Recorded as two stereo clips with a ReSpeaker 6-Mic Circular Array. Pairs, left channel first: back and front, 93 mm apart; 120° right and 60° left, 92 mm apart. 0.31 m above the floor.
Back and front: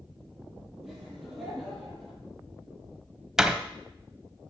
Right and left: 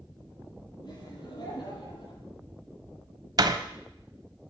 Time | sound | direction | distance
0.8 | laughter | 85° right | 9.5 m
3.4 | a door slam | 85° left | 1.3 m